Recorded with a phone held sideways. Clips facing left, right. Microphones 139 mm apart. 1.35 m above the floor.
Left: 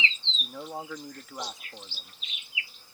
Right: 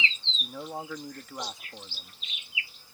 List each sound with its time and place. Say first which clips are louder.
0.4 s a man speaking: right 1 dB; centre (ahead or behind)